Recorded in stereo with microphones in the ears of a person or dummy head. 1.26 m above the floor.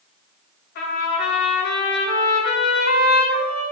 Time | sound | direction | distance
0.8 | a trumpet | 50° left (ahead or behind) | 3 m